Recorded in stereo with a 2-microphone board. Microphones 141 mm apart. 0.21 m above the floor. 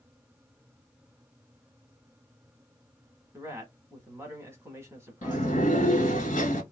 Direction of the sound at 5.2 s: 65° left (ahead or behind).